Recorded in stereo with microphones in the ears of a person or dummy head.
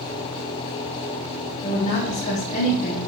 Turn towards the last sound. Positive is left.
turn(degrees=35)  # may be behind; listen again after turning